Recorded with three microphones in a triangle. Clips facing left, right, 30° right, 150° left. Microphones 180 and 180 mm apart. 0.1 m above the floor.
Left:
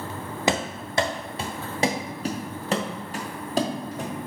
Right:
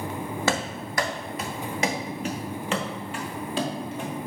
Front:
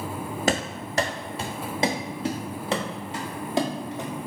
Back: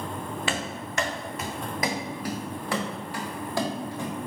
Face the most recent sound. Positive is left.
turn(degrees=40)